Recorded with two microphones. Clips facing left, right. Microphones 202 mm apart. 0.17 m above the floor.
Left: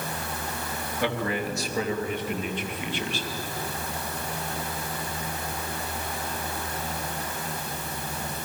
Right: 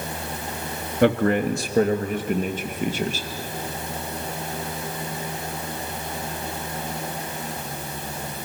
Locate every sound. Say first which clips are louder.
1.0 s a man speaking: right 10 dB; 55° right (ahead or behind), 2.0 m; by 3.3 s 45° right (ahead or behind), 3 m